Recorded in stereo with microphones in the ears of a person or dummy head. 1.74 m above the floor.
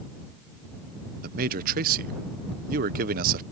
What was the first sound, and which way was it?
A man speaking, 55° right (ahead or behind).